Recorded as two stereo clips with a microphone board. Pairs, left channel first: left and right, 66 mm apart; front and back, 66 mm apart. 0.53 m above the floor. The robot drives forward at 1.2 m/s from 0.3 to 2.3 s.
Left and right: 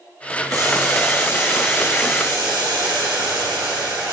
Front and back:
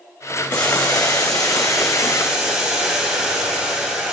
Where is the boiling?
70° right, 4.5 m; by 4.1 s 100° right, 4.5 m.